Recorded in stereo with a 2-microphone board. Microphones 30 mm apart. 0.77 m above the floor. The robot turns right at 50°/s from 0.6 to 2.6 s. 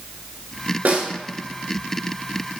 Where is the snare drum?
65° right (ahead or behind), 2 m; by 1.1 s 55° right (ahead or behind), 2 m.